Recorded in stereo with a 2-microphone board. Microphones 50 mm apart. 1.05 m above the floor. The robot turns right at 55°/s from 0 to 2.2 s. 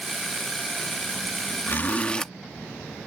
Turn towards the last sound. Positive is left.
turn(degrees=15)  # may be behind; listen again after turning